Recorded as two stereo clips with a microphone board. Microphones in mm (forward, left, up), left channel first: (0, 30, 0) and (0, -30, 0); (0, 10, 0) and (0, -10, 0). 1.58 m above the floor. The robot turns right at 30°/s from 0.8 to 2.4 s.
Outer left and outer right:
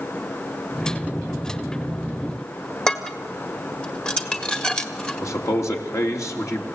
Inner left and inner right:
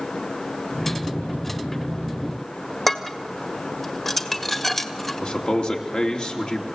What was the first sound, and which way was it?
Dishes clattering, 15° left (ahead or behind).